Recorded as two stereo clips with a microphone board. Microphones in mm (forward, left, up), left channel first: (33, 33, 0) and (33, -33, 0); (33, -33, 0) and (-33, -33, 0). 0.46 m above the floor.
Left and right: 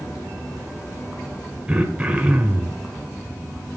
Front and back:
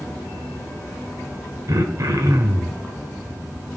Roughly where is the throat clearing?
Behind.